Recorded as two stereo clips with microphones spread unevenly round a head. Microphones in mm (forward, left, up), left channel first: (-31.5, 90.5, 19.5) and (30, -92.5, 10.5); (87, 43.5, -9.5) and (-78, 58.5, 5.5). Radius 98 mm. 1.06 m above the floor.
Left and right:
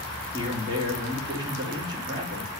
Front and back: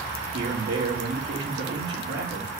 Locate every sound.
0.3 s a man speaking: 140° right, 2.5 m